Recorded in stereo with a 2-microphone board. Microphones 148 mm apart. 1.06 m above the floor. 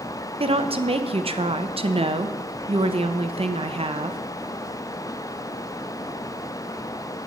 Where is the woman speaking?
40° right (ahead or behind), 0.6 m.